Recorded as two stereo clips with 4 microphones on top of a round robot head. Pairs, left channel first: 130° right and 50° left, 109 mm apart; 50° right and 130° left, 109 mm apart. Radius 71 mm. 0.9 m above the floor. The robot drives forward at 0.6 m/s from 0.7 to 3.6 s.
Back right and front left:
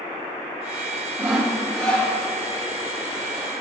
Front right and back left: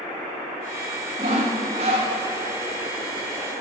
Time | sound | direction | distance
1.2 | sawing | 120° left | 0.8 m